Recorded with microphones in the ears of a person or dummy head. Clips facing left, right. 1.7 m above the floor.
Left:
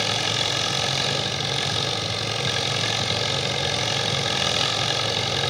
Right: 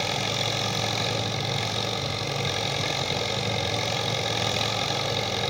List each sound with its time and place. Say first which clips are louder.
0.0 s an engine running: left 1 dB; 5° left (ahead or behind), 2.5 m